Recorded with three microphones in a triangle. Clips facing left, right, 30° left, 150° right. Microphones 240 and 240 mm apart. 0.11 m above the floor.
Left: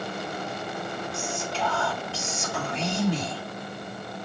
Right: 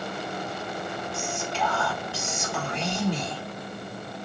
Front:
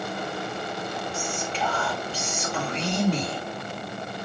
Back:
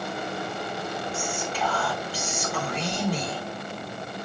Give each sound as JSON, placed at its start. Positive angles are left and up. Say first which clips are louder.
{"t": 1.1, "sound": "whispering", "louder": "right 1 dB, even", "azimuth_deg": -25, "distance_m": 1.9}